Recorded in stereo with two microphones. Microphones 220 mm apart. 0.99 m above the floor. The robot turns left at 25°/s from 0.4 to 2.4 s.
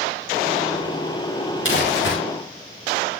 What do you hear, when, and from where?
1.6 s crumpling: 60° left (ahead or behind), 6 m; by 2.2 s 50° left (ahead or behind), 6 m